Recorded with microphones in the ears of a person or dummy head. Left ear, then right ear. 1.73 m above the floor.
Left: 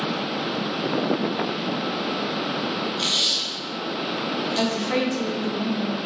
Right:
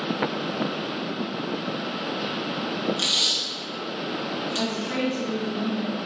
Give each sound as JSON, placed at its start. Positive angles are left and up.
{"t": 3.0, "sound": "tape being pulled", "side_deg": -55, "distance_m": 1.7}
{"t": 4.5, "sound": "a woman speaking", "side_deg": 5, "distance_m": 3.0}